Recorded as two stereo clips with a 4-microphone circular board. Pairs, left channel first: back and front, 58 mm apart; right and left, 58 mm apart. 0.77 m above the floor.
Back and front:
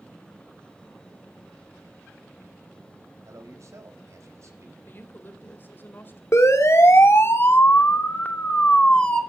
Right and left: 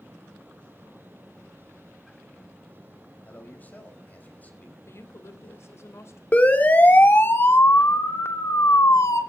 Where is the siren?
155° right, 2.5 m; by 9.2 s 105° right, 2.5 m.